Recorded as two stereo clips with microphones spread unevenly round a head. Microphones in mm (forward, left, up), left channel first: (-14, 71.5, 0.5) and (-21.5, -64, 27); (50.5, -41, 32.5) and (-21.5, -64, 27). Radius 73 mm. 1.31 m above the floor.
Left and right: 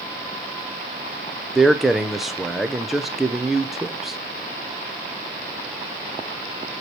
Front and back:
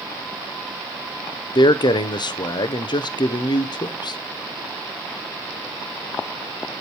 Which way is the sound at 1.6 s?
Straight ahead.